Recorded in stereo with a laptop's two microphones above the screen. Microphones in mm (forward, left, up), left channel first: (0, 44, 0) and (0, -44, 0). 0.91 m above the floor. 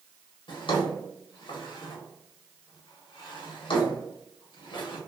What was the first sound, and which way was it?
A drawer, 75° left (ahead or behind).